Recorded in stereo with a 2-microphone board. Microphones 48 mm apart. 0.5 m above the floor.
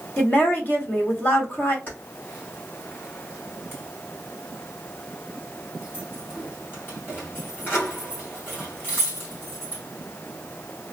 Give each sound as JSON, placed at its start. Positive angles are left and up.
{"t": 0.2, "sound": "a woman speaking", "side_deg": 45, "distance_m": 1.2}
{"t": 1.9, "sound": "keys jangling", "side_deg": 45, "distance_m": 2.5}